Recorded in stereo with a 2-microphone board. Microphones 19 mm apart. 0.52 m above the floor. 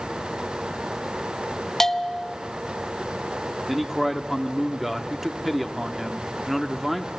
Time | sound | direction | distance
1.8 | a bell | 25° left (ahead or behind) | 0.6 m
3.7 | a man speaking | 5° right (ahead or behind) | 0.8 m